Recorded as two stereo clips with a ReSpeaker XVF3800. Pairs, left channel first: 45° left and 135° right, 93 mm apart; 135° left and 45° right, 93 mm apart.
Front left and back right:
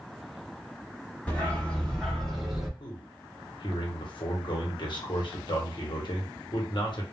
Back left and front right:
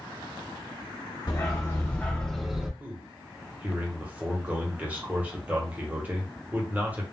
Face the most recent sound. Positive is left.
turn(degrees=25)